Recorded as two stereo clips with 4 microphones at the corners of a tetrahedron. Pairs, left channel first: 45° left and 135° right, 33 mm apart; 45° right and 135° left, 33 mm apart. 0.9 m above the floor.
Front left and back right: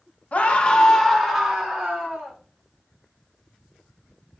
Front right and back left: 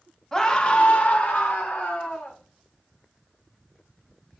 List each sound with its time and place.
0.3 s a scream: 25° left, 1.0 m; by 2.4 s 65° right, 2 m